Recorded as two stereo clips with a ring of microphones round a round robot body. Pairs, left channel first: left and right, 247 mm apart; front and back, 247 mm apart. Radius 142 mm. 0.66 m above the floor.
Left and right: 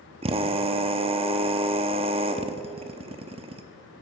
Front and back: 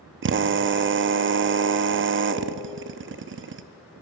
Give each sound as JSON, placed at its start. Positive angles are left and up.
{"t": 0.2, "sound": "a drill", "azimuth_deg": -155, "distance_m": 0.7}